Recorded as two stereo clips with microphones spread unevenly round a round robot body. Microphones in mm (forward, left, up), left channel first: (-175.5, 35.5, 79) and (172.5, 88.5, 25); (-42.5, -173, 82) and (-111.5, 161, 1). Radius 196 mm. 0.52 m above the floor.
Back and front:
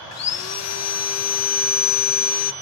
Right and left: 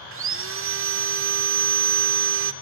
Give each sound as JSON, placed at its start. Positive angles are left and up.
{"t": 0.1, "sound": "sawing", "azimuth_deg": 140, "distance_m": 0.8}